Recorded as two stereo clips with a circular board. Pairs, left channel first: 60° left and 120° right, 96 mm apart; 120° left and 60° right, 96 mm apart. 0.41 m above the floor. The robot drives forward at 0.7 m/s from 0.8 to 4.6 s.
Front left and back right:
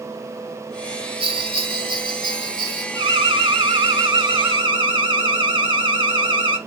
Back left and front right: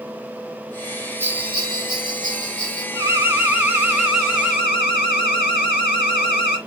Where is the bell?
125° right, 0.7 m; by 2.8 s 160° right, 1.6 m.